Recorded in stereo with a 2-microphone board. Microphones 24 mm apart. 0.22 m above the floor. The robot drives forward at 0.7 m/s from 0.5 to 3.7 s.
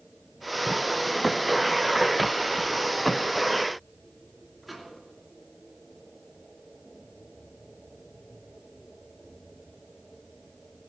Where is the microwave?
Centre (ahead or behind), 3 m.